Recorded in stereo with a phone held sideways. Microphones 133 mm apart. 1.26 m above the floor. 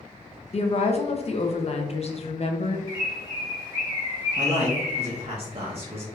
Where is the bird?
30° right (ahead or behind), 1.1 m.